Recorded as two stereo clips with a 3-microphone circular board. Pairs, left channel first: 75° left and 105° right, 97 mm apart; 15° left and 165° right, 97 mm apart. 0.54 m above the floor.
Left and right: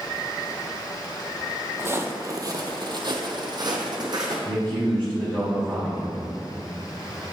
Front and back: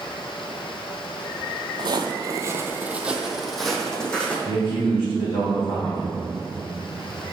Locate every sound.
1.8 s footsteps: 165° right, 0.7 m; by 4.3 s 65° right, 1.3 m
4.5 s a man speaking: 5° left, 2 m